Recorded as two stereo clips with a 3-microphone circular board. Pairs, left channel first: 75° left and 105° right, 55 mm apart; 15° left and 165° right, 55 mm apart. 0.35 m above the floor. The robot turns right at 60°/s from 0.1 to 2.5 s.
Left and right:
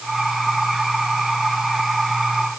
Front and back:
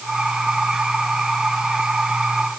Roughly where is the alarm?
No alarm in this recording.